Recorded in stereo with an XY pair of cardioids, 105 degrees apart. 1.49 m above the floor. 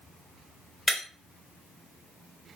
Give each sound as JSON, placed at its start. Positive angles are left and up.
{"t": 0.9, "sound": "breaking glass", "azimuth_deg": 15, "distance_m": 1.7}